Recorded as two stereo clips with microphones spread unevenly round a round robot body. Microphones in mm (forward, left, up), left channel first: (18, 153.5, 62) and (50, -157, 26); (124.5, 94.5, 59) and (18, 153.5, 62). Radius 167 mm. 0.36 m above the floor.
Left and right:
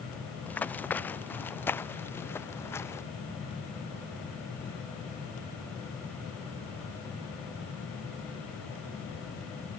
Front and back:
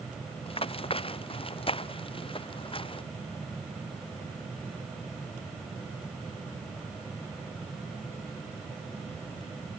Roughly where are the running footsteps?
Ahead.